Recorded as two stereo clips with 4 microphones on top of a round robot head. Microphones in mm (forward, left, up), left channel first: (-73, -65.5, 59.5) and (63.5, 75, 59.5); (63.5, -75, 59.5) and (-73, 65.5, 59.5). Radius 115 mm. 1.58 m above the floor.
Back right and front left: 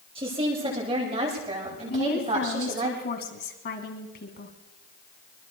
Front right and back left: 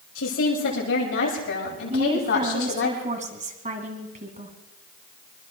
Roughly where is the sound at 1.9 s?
Behind.